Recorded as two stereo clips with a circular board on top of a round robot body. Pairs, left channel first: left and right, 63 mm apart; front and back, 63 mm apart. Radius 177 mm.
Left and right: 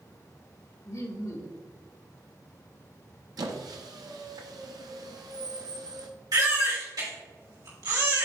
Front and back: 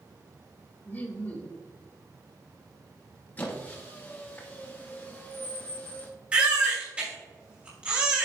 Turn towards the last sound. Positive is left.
turn(degrees=-110)